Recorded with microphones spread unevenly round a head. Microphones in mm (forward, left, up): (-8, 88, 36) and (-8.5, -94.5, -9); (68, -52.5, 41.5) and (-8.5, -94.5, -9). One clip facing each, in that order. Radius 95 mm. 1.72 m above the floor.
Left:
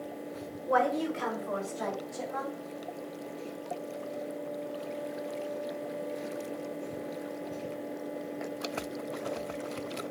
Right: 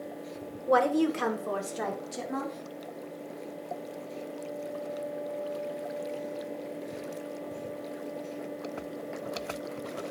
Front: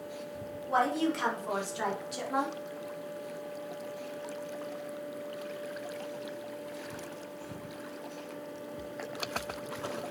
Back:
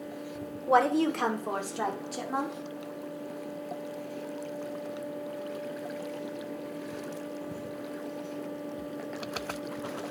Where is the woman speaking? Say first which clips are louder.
Right 4 dB, back 5 dB; 135° right, 1.4 m; by 2.5 s 95° right, 4 m.